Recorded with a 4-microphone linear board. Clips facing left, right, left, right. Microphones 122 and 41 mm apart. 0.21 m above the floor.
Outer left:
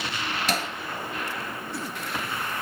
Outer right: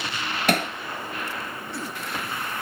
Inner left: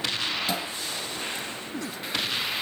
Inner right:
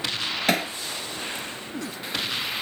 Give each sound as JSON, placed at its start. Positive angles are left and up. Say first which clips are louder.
{"t": 0.5, "sound": "hammering", "louder": "outer right 7 dB, inner right 6 dB", "side_deg": -60, "distance_m": 1.6}